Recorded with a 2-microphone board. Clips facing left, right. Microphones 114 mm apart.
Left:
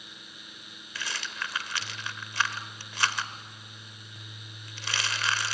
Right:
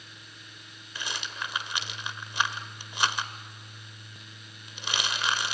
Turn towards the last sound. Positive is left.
turn(degrees=-20)  # may be behind; listen again after turning